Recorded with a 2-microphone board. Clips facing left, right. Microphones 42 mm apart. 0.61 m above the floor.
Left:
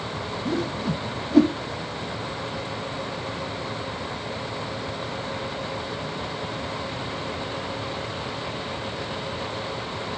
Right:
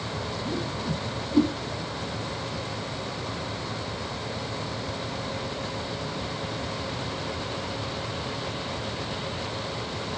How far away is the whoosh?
About 0.5 m.